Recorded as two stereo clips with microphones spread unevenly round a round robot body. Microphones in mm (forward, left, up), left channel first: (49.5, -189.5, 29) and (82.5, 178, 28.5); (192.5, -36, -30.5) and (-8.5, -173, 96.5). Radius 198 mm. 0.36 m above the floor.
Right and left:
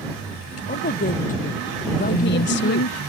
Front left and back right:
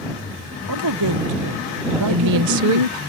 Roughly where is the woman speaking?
Behind right.